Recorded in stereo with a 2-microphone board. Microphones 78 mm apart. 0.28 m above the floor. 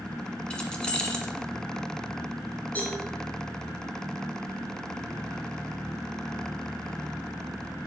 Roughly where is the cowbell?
Left.